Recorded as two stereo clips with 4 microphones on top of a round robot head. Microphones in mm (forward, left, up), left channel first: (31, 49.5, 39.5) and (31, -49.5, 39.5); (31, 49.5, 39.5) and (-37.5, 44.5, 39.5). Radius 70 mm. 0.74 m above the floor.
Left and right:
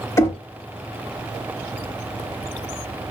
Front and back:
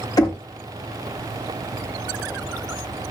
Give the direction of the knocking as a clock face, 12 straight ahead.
11 o'clock.